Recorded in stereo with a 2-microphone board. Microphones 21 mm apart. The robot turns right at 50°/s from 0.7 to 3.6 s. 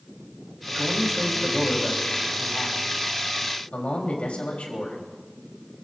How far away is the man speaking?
About 4.5 m.